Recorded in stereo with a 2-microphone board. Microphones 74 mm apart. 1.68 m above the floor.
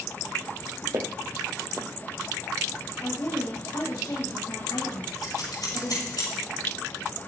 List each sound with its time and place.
0.9 s footsteps: 55° right (ahead or behind), 2.5 m
3.0 s a woman speaking: 55° left (ahead or behind), 9 m
5.2 s scissors: 60° left (ahead or behind), 6.5 m